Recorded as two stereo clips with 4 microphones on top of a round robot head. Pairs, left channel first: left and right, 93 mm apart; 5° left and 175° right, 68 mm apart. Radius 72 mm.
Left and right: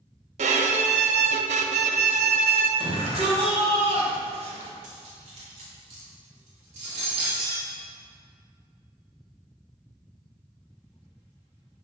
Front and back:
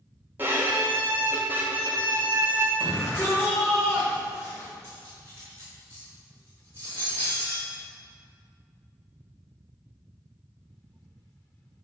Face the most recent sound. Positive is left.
turn(degrees=-110)